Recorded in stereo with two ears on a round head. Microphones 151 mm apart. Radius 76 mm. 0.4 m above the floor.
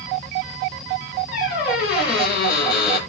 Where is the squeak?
65° left (ahead or behind), 7.5 m.